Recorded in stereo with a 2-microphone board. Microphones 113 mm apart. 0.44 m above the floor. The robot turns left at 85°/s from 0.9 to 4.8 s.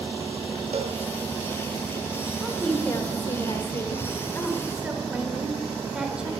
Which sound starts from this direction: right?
A cowbell, at 0.7 s.